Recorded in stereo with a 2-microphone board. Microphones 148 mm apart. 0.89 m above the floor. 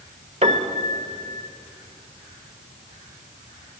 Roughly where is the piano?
Right.